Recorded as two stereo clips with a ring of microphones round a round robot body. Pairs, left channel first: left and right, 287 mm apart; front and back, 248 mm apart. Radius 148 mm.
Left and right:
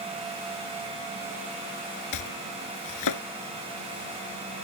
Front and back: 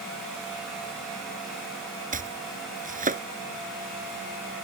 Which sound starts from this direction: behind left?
Chopping, at 2.1 s.